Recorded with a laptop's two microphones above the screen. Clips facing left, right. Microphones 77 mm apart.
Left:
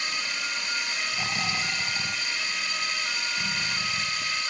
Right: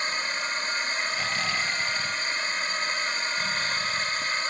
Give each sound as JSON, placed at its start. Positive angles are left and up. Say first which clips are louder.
{"t": 0.0, "sound": "a drone", "louder": "right 3 dB", "side_deg": -35}
{"t": 1.1, "sound": "snoring", "louder": "right 2 dB", "side_deg": 15}